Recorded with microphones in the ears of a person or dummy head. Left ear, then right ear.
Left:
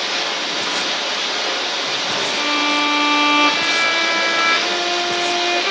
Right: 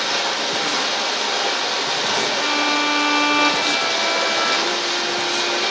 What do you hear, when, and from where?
0.0 s running water: 80° right, 3 m
2.4 s a violin: 25° left (ahead or behind), 0.9 m